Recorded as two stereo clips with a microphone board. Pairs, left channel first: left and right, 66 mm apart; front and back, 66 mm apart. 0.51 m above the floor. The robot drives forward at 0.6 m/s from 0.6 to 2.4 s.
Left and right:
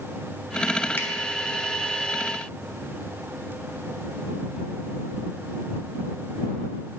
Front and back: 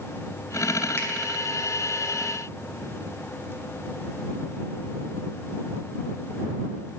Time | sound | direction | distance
1.0 | a finger snap | 40° left | 1.5 m